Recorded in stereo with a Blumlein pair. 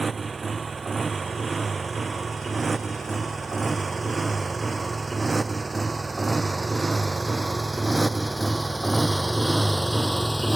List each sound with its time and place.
0.0 s a motorcycle: 15° right; by 10.6 s 5° right